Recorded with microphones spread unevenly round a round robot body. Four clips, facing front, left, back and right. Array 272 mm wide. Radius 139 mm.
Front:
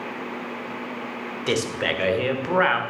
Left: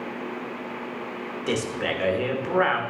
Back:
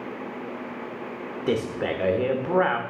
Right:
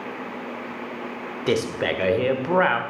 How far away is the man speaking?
About 1.1 m.